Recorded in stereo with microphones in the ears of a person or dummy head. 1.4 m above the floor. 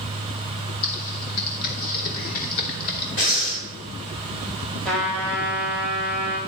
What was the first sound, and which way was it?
Typing on a keyboard, 50° left (ahead or behind).